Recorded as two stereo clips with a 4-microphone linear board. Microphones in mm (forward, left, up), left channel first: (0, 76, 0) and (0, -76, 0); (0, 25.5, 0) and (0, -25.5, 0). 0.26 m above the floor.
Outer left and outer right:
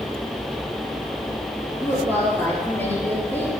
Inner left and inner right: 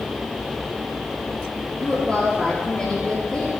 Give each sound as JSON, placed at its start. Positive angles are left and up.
{"t": 1.8, "sound": "a woman speaking", "side_deg": 15, "distance_m": 4.5}